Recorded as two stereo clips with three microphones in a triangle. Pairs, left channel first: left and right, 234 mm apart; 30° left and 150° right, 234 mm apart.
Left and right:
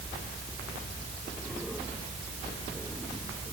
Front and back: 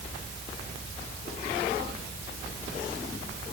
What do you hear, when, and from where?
Only background noise.